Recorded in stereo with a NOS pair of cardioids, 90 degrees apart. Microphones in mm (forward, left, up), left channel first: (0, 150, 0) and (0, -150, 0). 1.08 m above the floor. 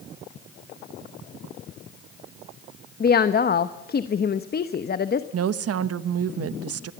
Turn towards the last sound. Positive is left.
turn(degrees=-55)